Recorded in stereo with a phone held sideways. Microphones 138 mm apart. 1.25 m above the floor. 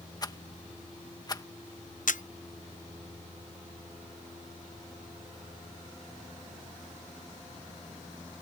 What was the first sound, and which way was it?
A rattle, 25° left (ahead or behind).